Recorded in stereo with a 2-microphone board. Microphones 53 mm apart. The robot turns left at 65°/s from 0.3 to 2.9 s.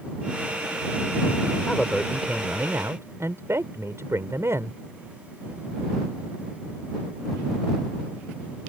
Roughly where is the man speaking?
Ahead.